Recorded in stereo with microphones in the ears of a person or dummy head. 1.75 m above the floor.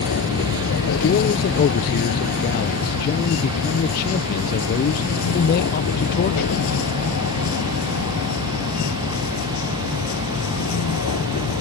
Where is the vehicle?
70° left (ahead or behind); by 11.6 s 80° left.